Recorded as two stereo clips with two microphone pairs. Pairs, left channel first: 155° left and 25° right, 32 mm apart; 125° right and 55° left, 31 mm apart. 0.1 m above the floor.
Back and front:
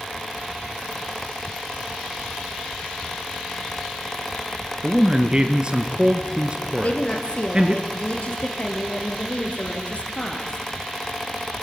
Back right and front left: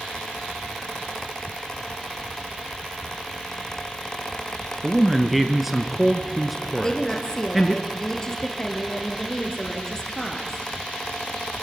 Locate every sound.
4.8 s a man speaking: 20° right, 1.1 m
6.8 s a woman speaking: 170° left, 2 m